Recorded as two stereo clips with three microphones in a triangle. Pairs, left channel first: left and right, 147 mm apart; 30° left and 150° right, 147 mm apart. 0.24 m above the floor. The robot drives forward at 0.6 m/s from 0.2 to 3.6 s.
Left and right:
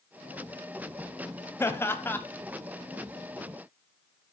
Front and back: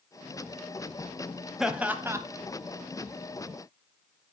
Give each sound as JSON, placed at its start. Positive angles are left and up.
{"t": 1.6, "sound": "laughter", "azimuth_deg": 130, "distance_m": 0.9}